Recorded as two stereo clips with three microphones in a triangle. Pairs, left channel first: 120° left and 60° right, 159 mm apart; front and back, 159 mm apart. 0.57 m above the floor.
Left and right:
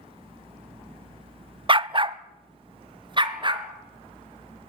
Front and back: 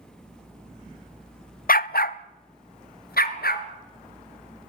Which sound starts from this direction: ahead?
A dog barking, at 1.7 s.